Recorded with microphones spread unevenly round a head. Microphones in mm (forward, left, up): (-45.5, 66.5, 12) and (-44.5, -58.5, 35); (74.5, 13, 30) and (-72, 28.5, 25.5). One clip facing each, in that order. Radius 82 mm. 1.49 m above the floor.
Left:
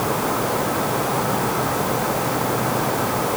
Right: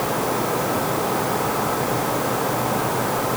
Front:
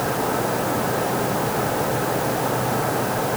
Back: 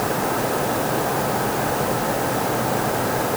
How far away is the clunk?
I don't hear a clunk.